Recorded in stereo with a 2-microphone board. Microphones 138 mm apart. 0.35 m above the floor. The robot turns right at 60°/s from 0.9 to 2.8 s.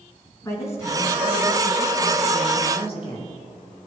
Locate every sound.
0.4 s a woman speaking: 20° left, 4.5 m; by 3.4 s 135° left, 4.5 m